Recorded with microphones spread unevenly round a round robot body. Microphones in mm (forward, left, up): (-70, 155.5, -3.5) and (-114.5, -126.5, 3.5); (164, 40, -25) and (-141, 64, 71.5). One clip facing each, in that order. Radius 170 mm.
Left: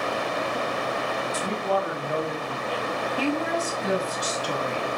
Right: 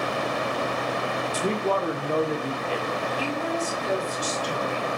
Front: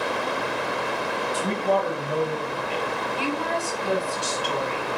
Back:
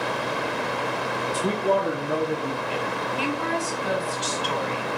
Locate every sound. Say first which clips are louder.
1.3 s a man speaking: right 3 dB, back 1 dB; 125° right, 1.7 m; by 2.9 s 165° right, 2 m
3.2 s a woman speaking: left 6 dB, back 1 dB; 105° left, 6 m